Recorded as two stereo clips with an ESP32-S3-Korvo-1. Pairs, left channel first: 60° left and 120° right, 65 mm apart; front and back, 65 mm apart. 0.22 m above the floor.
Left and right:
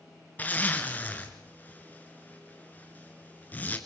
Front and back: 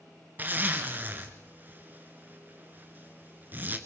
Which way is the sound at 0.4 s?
120° left.